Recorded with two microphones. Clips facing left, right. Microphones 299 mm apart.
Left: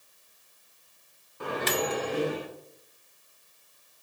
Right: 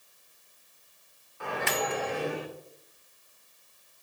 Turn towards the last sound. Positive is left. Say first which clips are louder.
# left 3 dB
turn(degrees=40)  # may be behind; listen again after turning